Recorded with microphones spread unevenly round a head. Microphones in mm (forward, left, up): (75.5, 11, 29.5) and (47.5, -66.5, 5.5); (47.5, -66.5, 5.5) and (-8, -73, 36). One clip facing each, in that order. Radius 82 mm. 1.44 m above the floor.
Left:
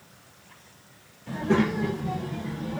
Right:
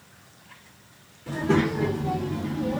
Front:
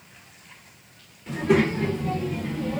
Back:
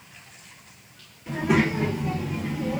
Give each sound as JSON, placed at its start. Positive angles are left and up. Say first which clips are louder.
{"t": 1.3, "sound": "a child speaking", "louder": "right 1 dB, front 1 dB", "azimuth_deg": -110, "distance_m": 1.9}